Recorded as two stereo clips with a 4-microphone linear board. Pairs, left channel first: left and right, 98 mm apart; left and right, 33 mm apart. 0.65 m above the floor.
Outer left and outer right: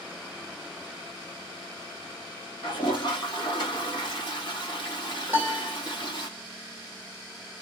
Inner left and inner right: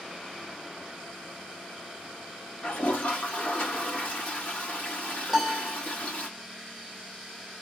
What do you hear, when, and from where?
2.6 s a toilet flushing: 50° left (ahead or behind), 1.8 m
5.3 s a piano: 20° right (ahead or behind), 1.3 m